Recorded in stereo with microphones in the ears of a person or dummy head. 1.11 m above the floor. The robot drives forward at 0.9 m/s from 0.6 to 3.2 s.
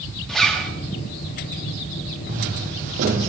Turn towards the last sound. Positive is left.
turn(degrees=-40)  # may be behind; listen again after turning